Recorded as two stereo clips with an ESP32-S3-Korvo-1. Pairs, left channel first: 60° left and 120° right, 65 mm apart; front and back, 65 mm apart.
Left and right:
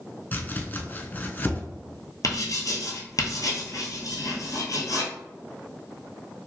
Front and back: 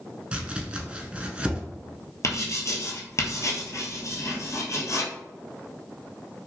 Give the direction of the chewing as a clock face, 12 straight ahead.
I don't hear chewing.